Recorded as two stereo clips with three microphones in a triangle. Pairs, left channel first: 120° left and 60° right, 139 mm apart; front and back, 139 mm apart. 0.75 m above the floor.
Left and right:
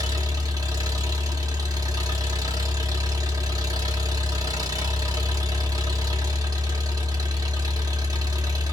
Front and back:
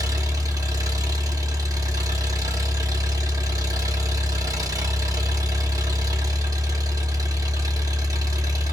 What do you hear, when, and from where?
0.0 s an engine running: 120° right, 1.5 m